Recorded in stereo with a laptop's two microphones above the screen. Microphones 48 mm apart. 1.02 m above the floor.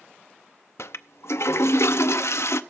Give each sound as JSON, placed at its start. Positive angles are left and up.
{"t": 0.8, "sound": "a toilet flushing", "side_deg": 65, "distance_m": 0.6}